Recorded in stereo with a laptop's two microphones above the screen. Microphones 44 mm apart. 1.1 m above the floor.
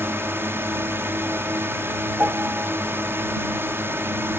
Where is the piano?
45° right (ahead or behind).